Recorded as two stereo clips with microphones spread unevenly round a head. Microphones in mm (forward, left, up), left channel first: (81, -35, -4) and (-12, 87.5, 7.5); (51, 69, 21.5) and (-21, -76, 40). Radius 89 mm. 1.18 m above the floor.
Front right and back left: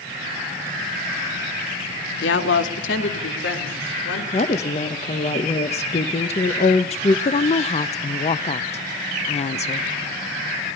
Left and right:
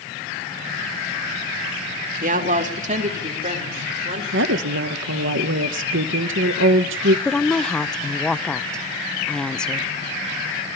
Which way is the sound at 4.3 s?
110° right.